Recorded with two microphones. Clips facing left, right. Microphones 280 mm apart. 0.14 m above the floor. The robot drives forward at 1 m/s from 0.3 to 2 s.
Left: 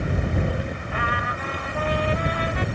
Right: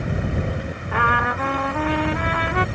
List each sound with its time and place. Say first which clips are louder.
0.9 s a trumpet: right 5 dB; 70° right (ahead or behind)